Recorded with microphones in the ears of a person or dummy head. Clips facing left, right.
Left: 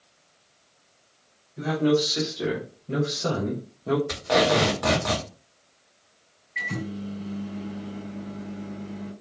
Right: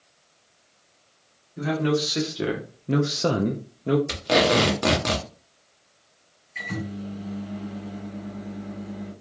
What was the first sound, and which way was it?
A man speaking, 25° right (ahead or behind).